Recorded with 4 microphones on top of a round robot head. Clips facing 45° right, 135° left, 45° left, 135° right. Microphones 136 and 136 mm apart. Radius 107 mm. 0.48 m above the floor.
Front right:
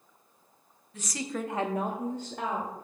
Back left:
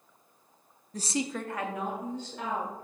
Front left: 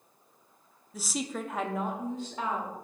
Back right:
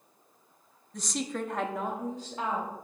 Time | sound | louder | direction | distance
0.9 | a woman speaking | back left 3 dB, back right 1 dB | 125° left | 0.8 m